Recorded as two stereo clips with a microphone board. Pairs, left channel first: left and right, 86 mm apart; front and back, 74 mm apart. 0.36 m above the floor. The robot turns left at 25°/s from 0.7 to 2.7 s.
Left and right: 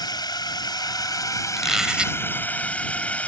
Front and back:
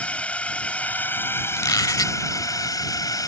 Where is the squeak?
Straight ahead; by 2.2 s 20° right.